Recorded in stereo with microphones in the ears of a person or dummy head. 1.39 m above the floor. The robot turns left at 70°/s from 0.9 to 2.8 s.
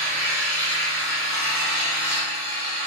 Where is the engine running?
170° left, 1.7 m; by 2.9 s 40° left, 1.7 m.